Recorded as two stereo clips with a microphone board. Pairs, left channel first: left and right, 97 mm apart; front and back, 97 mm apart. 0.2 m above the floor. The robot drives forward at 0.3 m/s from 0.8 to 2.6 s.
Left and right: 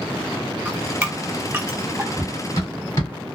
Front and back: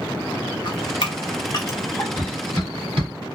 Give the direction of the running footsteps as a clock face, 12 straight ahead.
7 o'clock.